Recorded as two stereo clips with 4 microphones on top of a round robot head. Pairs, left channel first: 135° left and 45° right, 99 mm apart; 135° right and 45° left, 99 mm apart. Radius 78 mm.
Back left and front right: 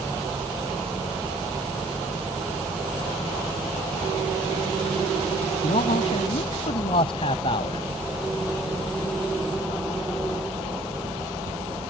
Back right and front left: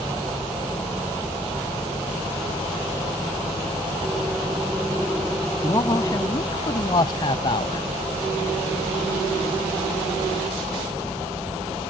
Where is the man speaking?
165° left; by 7.8 s straight behind.